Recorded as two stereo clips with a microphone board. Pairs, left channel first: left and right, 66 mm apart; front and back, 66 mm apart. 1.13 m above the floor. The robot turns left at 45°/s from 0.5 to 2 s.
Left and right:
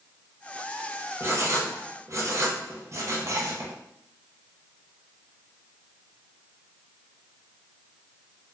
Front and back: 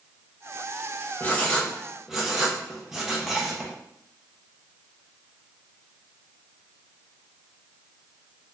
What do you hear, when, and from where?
1.2 s writing: 60° right, 0.6 m; by 3.7 s 95° right, 0.6 m